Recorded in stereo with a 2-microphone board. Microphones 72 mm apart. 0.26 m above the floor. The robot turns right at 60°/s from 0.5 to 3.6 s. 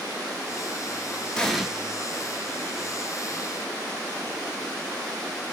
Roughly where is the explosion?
Centre.